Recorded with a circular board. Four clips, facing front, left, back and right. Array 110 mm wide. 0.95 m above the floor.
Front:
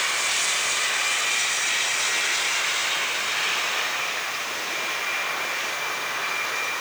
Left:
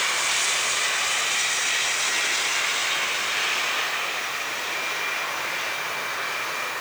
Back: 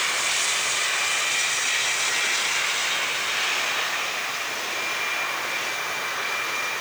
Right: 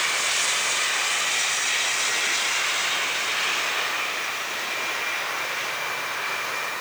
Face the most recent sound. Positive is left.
No sound to turn to.